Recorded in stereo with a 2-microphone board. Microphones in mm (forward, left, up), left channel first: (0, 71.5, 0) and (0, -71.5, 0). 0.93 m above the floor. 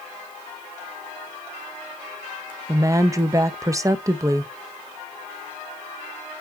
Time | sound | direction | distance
2.7 | a woman speaking | 25° right (ahead or behind) | 0.5 m